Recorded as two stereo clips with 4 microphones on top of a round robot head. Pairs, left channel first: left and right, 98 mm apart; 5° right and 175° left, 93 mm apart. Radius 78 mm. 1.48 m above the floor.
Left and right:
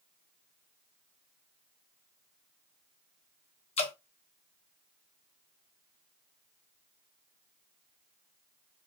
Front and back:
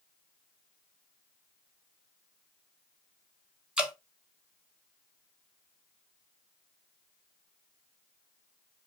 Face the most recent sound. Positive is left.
turn(degrees=95)